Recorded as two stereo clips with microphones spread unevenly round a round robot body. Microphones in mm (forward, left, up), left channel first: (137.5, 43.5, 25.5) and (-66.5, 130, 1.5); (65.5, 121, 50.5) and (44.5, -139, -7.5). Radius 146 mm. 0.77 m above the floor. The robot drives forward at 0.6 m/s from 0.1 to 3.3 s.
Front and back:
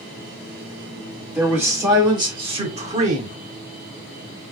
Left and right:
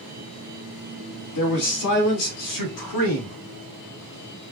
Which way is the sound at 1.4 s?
75° left.